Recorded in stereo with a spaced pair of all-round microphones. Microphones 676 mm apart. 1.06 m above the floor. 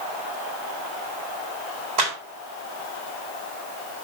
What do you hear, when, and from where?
2.0 s a clap: 85° right, 4.5 m